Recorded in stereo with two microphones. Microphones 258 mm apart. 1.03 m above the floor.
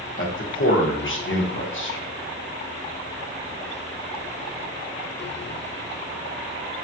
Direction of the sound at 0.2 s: 50° left (ahead or behind).